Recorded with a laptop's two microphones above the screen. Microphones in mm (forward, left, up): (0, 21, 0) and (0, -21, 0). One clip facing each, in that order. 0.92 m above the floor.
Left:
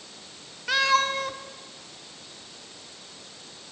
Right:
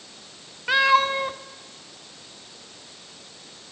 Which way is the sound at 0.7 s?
20° right (ahead or behind).